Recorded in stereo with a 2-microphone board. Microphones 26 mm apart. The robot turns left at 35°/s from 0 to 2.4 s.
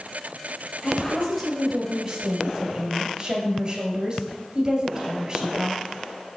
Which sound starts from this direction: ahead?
A woman speaking, at 0.8 s.